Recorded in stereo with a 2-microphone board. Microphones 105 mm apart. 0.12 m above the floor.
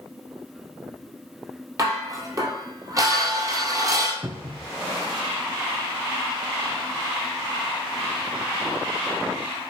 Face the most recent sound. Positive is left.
turn(degrees=-25)  # may be behind; listen again after turning